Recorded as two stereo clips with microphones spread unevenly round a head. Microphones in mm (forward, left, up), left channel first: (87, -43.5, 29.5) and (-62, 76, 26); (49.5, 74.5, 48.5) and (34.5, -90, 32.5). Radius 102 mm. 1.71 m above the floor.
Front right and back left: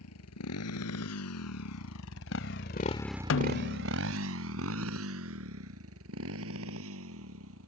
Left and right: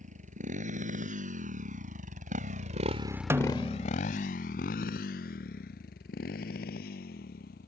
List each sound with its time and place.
0.0 s a motorcycle: 50° right; by 7.7 s 130° left
3.3 s a snare drum: 20° right